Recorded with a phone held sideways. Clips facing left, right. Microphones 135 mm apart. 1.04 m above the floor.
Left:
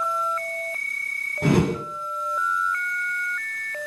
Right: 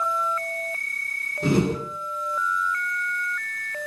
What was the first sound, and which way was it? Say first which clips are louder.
A whoosh: left 1 dB; 60° left (ahead or behind).